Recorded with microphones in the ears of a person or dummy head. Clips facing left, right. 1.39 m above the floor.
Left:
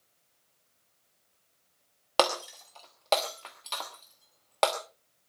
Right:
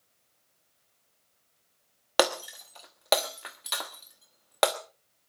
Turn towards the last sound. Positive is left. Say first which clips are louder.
# right 1 dB
turn(degrees=-15)  # may be behind; listen again after turning